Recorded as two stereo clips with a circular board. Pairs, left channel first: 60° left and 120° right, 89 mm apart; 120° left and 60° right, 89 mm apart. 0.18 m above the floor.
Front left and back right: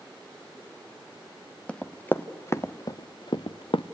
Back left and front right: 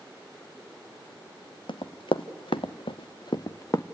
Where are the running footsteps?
135° left, 1.2 m; by 3.8 s 65° left, 0.8 m.